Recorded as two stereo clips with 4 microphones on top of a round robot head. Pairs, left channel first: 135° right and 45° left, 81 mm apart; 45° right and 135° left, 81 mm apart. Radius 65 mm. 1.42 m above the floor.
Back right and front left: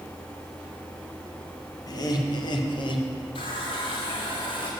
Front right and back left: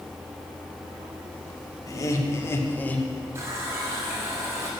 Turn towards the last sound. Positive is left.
turn(degrees=-165)